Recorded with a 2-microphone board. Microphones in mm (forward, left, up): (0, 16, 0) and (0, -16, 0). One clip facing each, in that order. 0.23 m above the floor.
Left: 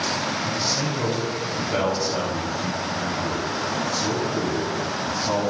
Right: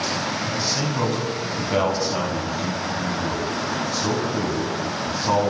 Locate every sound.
0.4 s a man speaking: 40° right (ahead or behind), 1.2 m